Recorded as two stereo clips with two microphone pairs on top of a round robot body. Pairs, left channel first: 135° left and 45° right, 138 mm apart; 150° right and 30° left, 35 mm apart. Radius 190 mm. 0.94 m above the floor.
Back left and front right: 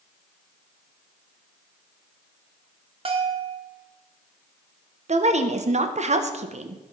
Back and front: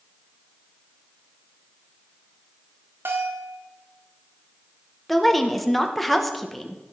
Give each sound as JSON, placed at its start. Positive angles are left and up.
{"t": 3.0, "sound": "a bell", "azimuth_deg": 5, "distance_m": 1.3}
{"t": 5.1, "sound": "a woman speaking", "azimuth_deg": -65, "distance_m": 1.4}